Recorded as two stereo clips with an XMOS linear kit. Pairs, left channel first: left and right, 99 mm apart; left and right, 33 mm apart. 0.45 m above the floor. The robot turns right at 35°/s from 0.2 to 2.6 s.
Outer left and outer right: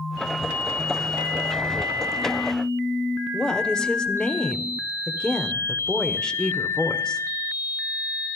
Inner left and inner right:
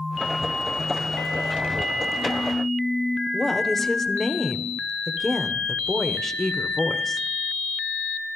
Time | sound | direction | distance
3.3 | a woman speaking | 10° left (ahead or behind) | 1.3 m